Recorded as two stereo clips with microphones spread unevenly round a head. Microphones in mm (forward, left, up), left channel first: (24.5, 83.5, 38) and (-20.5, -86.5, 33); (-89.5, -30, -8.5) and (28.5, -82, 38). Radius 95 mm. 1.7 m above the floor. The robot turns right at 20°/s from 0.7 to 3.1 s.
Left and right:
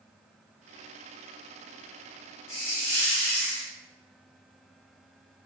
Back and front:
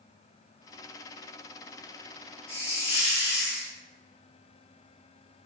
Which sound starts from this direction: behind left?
A hiss, at 2.5 s.